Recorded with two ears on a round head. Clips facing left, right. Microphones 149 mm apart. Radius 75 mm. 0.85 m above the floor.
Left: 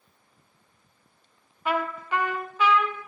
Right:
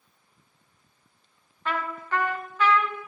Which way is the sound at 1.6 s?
10° left (ahead or behind).